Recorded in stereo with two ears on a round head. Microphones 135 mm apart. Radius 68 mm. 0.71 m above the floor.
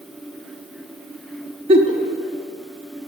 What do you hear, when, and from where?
1.7 s a giggle: 40° right (ahead or behind), 1.0 m